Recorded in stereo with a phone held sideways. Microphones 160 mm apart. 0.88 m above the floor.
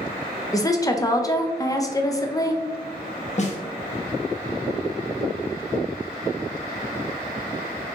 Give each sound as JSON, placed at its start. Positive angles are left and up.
{"t": 0.5, "sound": "a woman speaking", "side_deg": 20, "distance_m": 0.5}
{"t": 3.4, "sound": "a snare drum", "side_deg": 45, "distance_m": 0.8}